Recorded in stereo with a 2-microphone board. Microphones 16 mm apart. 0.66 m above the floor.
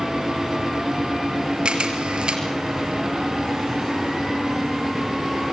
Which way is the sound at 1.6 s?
70° right (ahead or behind).